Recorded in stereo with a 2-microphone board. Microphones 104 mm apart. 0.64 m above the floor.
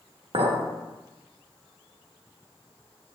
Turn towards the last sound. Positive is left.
turn(degrees=-65)  # may be behind; listen again after turning